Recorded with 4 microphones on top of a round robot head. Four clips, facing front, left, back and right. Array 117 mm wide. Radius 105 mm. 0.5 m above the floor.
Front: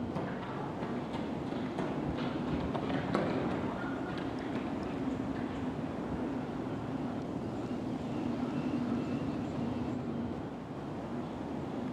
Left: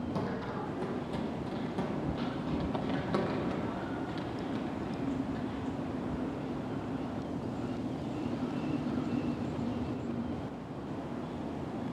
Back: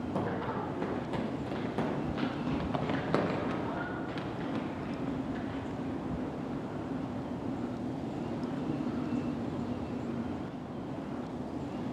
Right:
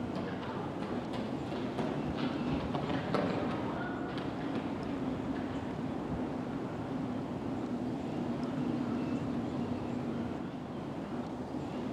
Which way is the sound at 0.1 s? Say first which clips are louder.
Left 2 dB, back 4 dB; 155° left.